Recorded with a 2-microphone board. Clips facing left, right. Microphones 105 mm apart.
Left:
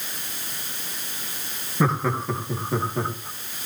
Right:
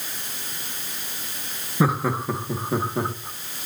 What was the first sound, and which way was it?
Laughter, 5° right (ahead or behind).